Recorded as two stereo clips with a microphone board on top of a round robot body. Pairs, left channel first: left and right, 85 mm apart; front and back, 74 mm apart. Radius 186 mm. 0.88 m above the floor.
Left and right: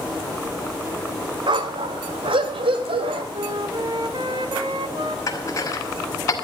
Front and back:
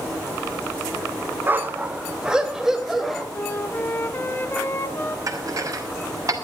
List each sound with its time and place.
1.5 s a dog barking: 120° right, 1.3 m; by 3.2 s 90° right, 3 m
3.3 s a flute: 60° right, 1.5 m
5.3 s dishes clattering: 140° left, 2.5 m